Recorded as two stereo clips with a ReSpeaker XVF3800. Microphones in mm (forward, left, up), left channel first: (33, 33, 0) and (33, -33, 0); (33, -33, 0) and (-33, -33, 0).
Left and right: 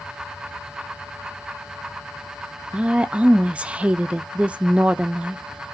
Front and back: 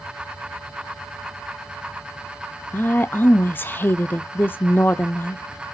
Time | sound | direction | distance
2.7 | a woman speaking | 30° right | 0.5 m